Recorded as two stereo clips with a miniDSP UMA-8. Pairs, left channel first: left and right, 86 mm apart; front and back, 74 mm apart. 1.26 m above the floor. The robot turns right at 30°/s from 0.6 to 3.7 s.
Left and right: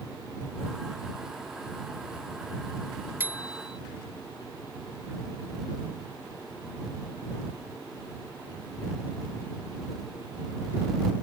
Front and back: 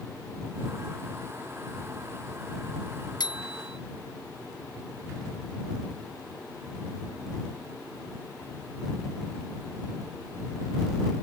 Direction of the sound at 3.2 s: 25° right.